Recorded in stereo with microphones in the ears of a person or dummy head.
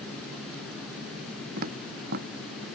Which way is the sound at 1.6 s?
55° right (ahead or behind).